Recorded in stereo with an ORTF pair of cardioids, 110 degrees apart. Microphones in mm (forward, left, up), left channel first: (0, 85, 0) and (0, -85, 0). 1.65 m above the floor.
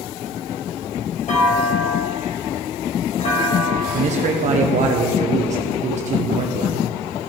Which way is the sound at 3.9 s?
45° right.